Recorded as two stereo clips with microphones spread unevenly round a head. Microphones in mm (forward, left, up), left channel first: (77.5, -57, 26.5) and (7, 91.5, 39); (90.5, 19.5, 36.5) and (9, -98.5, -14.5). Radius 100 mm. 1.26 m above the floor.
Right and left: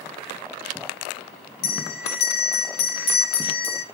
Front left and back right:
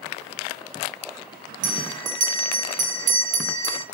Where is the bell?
100° right, 1.6 m.